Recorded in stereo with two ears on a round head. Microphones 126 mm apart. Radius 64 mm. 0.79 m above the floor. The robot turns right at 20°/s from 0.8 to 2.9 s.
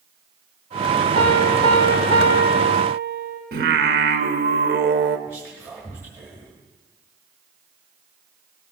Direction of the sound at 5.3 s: 15° right (ahead or behind).